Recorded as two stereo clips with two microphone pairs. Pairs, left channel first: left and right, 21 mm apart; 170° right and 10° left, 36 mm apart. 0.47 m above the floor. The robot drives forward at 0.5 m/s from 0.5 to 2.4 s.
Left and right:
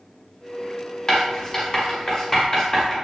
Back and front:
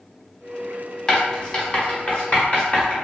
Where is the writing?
135° left, 1.2 m; by 2.9 s 155° left, 1.6 m.